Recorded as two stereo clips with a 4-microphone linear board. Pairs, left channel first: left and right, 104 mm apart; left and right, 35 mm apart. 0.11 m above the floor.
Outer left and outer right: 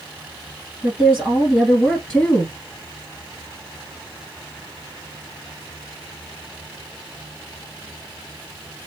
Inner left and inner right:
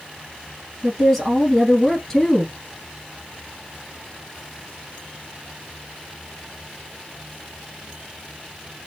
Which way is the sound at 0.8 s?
15° right (ahead or behind).